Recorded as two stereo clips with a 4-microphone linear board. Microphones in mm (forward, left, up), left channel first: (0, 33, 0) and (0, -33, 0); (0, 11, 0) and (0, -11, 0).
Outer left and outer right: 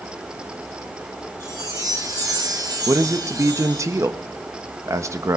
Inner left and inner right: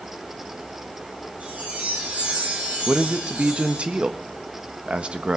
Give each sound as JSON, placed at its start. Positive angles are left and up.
{"t": 1.4, "sound": "a chime", "side_deg": -65, "distance_m": 4.0}
{"t": 2.9, "sound": "a man speaking", "side_deg": -45, "distance_m": 1.1}